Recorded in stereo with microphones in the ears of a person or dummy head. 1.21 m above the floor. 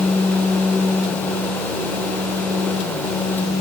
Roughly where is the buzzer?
No buzzer in this recording.